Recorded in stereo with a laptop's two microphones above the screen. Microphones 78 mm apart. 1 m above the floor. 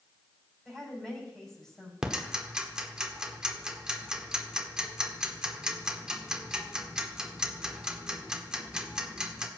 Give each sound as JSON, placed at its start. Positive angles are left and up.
{"t": 0.7, "sound": "a woman speaking", "side_deg": 10, "distance_m": 5.5}
{"t": 2.0, "sound": "ticking", "side_deg": -10, "distance_m": 1.3}